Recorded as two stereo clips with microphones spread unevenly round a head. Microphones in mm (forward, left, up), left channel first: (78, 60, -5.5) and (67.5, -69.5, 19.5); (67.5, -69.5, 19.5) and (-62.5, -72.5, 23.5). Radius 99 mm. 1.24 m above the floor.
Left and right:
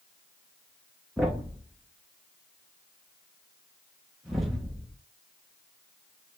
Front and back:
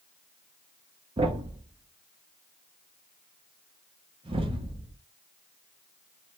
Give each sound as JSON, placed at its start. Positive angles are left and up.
{"t": 1.2, "sound": "a thud", "azimuth_deg": -170, "distance_m": 0.6}